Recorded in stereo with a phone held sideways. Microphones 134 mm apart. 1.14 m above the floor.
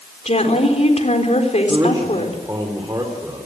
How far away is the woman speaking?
About 4 m.